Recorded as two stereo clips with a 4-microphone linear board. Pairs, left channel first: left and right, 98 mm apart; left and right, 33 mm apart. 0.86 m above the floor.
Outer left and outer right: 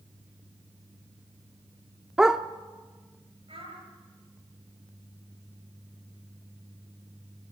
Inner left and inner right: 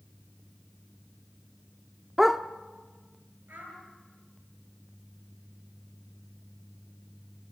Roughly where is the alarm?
No alarm in this recording.